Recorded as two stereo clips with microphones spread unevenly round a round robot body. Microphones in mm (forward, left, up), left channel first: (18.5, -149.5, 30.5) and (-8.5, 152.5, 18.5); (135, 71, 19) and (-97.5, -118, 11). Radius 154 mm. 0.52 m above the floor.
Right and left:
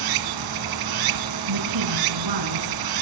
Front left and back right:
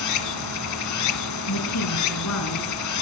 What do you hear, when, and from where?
0.0 s running water: 80° left, 1.6 m
1.5 s a woman speaking: 80° left, 6 m